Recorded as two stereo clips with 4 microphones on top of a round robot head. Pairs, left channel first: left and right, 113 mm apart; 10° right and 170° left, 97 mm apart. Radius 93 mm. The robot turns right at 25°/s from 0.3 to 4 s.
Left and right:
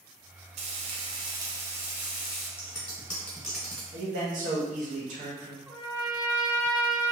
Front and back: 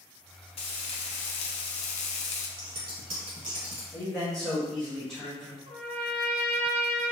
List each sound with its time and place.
0.6 s frying: 50° right, 0.6 m; by 2.5 s straight ahead, 0.6 m
2.6 s scissors: 155° left, 1.4 m; by 3.8 s 170° right, 1.4 m
3.9 s a man speaking: 100° right, 1.3 m; by 5.6 s 95° right, 1.3 m
5.7 s a trumpet: 165° right, 1.0 m